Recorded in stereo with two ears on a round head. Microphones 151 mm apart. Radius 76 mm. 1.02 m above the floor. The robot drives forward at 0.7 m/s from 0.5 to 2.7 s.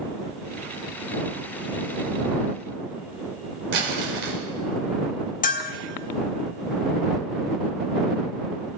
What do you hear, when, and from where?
3.7 s crumpling: 75° right (ahead or behind), 4.5 m
5.4 s a bell: 50° left (ahead or behind), 1.8 m